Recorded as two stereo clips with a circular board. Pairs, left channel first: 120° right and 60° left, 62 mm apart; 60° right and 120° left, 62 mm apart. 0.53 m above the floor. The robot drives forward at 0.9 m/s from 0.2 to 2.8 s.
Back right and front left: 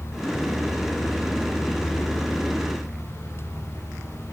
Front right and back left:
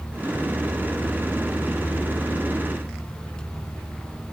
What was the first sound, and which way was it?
Only background noise.